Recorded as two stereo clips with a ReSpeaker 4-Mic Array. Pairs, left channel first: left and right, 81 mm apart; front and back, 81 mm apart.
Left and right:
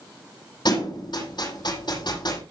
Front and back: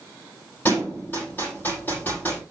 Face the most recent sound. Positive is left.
turn(degrees=65)